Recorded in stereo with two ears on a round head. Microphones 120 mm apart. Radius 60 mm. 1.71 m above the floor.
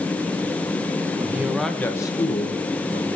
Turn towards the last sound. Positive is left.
turn(degrees=70)  # may be behind; listen again after turning